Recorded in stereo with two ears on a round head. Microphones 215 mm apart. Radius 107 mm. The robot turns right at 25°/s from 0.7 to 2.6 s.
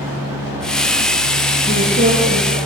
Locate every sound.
1.7 s a woman speaking: 25° right (ahead or behind), 8.5 m; by 2.6 s 45° right (ahead or behind), 8.5 m